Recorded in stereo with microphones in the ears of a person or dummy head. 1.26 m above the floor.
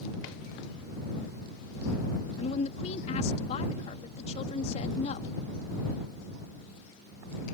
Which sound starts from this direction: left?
A woman speaking, at 2.4 s.